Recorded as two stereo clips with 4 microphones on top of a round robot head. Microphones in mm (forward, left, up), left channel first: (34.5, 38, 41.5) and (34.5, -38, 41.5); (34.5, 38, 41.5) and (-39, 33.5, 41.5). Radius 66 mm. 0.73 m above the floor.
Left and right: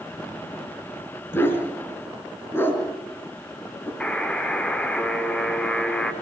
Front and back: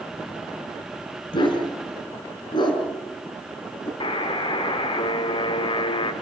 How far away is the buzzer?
About 2 m.